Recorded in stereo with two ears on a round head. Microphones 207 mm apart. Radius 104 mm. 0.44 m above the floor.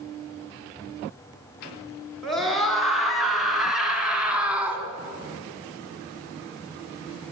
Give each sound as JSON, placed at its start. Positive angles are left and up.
{"t": 2.2, "sound": "a scream", "side_deg": 0, "distance_m": 6.5}